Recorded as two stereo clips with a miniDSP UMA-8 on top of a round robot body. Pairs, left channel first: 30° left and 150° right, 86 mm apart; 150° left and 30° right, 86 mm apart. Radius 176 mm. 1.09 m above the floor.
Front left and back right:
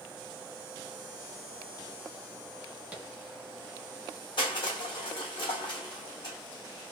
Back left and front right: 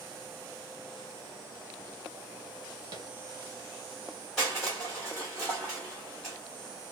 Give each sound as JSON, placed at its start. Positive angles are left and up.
{"t": 2.9, "sound": "tapping", "azimuth_deg": -75, "distance_m": 1.1}
{"t": 4.4, "sound": "crushing", "azimuth_deg": 60, "distance_m": 1.2}